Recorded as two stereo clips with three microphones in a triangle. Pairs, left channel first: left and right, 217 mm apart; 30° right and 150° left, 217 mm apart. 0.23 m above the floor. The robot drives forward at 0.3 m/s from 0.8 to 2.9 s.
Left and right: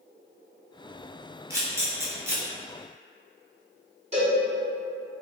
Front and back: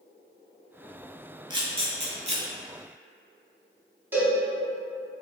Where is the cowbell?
130° right, 1.4 m.